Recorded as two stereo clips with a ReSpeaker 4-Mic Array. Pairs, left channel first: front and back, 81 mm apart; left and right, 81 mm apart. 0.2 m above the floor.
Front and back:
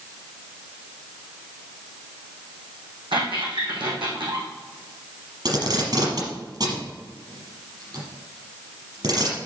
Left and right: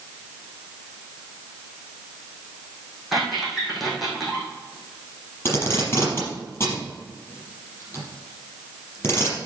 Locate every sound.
3.1 s a squeak: straight behind, 4 m
5.5 s tape being pulled: 150° left, 5 m